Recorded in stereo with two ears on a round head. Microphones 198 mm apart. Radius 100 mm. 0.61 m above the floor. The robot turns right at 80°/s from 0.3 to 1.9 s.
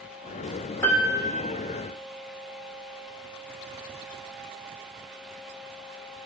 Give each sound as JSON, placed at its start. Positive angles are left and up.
{"t": 0.8, "sound": "a piano", "azimuth_deg": 170, "distance_m": 1.7}